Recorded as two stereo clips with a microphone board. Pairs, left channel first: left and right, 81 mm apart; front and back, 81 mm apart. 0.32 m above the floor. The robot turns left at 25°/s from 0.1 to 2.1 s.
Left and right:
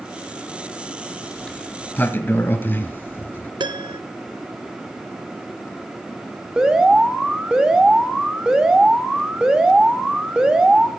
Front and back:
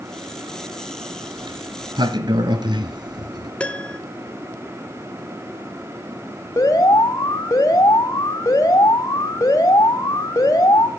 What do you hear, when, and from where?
1.4 s a sliding door: 175° left, 1.0 m; by 3.5 s 155° left, 1.0 m
3.6 s a piano: 75° right, 0.7 m
6.6 s an alarm: 15° right, 2 m